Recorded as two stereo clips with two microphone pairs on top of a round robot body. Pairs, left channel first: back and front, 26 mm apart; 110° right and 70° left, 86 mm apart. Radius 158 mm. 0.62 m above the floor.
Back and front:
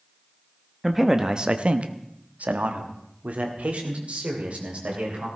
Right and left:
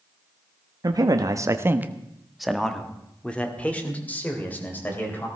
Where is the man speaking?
85° left, 1.2 m; by 5.3 s 40° right, 3.5 m.